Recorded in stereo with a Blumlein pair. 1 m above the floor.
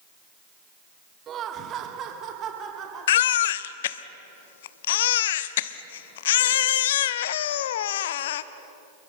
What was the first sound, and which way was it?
Laughter, 30° right.